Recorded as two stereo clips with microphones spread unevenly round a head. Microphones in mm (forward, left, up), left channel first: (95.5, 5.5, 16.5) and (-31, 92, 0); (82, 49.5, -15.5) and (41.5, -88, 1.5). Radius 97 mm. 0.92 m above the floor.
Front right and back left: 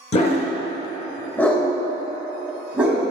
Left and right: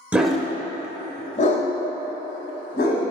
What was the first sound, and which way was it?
A dog barking, 35° right.